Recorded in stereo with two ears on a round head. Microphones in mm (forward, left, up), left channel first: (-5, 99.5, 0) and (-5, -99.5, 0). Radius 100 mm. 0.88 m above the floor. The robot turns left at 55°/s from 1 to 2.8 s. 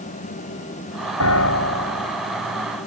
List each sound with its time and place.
1.2 s a piano: 80° left; by 2.2 s 20° left